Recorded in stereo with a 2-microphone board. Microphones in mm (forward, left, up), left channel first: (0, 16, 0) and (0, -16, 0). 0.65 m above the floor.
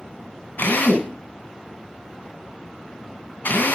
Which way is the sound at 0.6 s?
85° left.